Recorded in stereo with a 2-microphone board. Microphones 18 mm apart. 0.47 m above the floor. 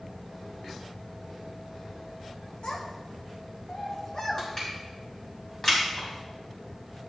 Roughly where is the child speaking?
Left.